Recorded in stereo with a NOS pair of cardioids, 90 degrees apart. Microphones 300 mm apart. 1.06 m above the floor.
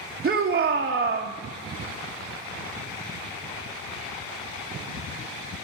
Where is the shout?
30° right, 0.9 m.